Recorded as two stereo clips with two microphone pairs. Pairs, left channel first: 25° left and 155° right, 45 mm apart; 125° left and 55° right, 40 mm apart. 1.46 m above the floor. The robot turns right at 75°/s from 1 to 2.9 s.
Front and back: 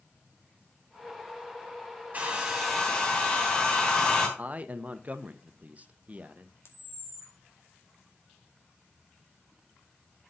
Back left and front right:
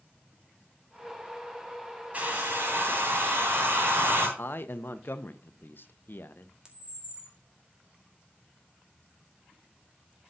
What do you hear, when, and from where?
2.1 s a hair dryer: 105° right, 2.5 m; by 4.3 s 50° right, 2.5 m
4.4 s a man speaking: 145° left, 0.8 m
6.7 s a camera shutter: 15° left, 1.9 m